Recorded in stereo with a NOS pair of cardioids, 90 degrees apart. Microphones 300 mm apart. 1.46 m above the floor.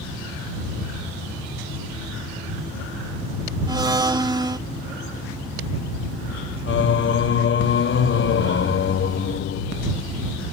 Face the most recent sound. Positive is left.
turn(degrees=40)